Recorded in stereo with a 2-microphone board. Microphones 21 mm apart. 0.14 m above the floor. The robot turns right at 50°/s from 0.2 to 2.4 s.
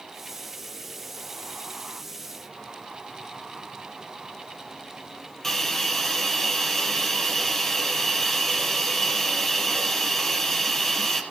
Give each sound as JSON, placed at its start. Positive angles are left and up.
{"t": 5.4, "sound": "a hiss", "side_deg": 20, "distance_m": 3.5}